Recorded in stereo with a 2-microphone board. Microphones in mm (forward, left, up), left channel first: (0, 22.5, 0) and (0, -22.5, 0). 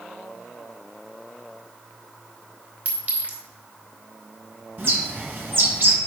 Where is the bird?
55° right (ahead or behind), 1.7 m.